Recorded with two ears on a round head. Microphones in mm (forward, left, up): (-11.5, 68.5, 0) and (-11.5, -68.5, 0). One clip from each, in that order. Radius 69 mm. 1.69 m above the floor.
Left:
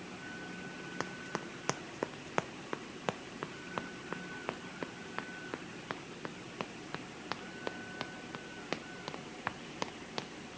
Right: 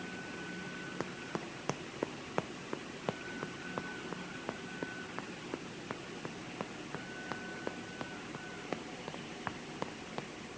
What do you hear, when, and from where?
1.0 s running footsteps: 40° left (ahead or behind); by 10.5 s 80° left